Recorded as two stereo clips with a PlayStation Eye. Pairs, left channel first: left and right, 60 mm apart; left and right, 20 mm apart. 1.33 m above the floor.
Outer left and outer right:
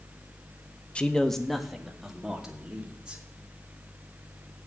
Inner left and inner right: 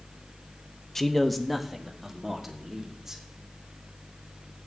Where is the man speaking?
20° left (ahead or behind), 0.9 m; by 3.2 s 10° right (ahead or behind), 3.5 m.